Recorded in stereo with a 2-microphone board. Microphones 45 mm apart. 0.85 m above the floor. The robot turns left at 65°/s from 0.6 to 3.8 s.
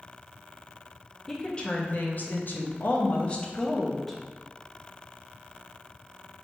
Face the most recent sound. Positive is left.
turn(degrees=5)